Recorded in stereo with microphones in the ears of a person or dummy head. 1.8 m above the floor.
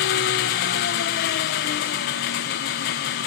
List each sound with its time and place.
0.0 s an engine running: 50° left (ahead or behind), 1.1 m